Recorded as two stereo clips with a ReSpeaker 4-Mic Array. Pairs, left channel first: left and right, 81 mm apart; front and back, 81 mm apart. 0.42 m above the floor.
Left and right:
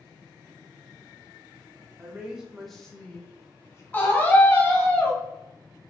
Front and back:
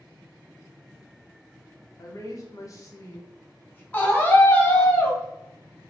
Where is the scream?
50° left, 1.4 m.